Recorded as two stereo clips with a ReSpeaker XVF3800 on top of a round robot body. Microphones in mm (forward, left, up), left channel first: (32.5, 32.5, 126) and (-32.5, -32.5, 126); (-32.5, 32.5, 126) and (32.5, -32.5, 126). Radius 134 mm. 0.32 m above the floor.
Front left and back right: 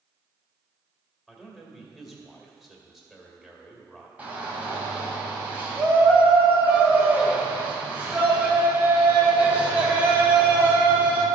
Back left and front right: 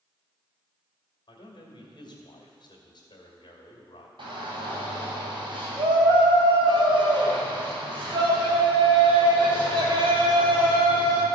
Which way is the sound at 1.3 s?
140° left.